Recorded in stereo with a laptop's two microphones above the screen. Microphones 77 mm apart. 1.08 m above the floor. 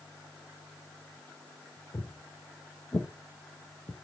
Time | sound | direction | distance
1.9 | footsteps | 35° left (ahead or behind) | 2.0 m